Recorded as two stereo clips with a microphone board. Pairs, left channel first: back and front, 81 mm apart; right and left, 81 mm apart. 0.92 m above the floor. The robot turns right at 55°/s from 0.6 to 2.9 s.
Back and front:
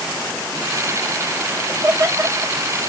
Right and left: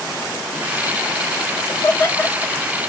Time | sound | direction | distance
1.7 | laughter | 60° right | 1.5 m